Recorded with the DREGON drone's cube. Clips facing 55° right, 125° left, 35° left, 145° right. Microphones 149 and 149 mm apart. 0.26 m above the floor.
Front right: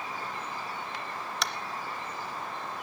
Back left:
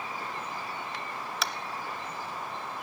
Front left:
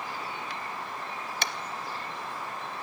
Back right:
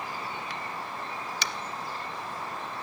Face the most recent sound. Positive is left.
turn(degrees=35)